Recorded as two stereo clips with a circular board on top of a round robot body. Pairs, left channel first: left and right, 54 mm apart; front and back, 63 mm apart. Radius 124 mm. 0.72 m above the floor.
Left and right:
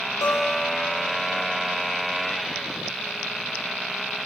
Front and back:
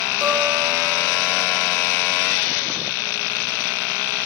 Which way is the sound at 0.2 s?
120° left.